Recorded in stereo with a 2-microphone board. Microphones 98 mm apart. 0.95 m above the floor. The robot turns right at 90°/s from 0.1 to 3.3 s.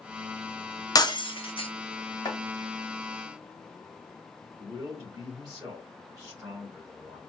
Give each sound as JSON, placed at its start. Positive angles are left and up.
{"t": 0.9, "sound": "breaking glass", "side_deg": 35, "distance_m": 0.6}
{"t": 2.2, "sound": "chopping", "side_deg": 45, "distance_m": 1.2}
{"t": 4.6, "sound": "a man speaking", "side_deg": -35, "distance_m": 2.5}